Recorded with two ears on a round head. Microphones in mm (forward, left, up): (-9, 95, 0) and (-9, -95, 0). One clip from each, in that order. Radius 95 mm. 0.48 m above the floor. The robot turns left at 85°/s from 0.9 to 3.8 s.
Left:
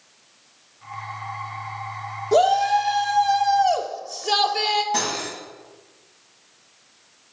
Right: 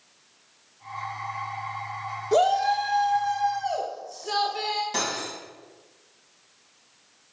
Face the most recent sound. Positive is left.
turn(degrees=-20)  # may be behind; listen again after turning